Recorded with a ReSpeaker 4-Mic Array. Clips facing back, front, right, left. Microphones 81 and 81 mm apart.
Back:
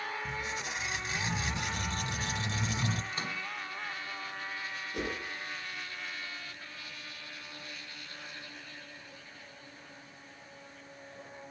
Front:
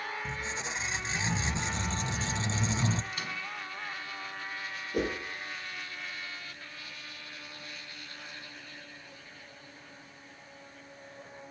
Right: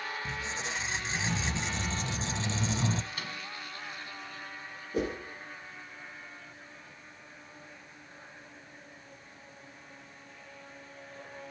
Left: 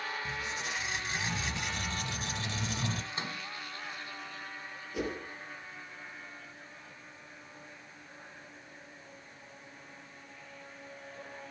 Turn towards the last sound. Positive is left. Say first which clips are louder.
# front 6 dB, right 4 dB
turn(degrees=-40)